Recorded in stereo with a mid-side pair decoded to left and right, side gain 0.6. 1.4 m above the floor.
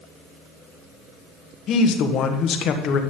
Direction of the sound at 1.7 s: 55° left.